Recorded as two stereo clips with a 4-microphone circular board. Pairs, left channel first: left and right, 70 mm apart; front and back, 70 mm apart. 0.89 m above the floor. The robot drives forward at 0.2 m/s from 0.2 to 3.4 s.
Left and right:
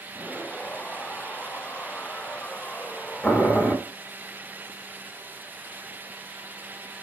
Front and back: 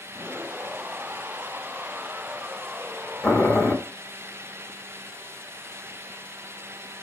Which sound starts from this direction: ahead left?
Boiling, at 3.2 s.